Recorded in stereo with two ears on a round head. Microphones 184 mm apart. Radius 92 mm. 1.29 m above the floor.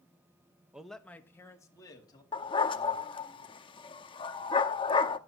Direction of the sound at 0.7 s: 5° right (ahead or behind).